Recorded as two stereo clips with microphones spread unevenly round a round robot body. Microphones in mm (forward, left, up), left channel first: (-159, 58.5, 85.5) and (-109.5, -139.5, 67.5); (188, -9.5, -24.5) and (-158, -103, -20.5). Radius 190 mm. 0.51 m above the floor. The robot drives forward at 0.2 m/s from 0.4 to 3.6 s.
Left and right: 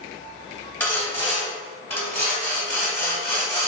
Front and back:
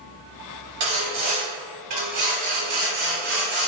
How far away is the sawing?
About 1.1 m.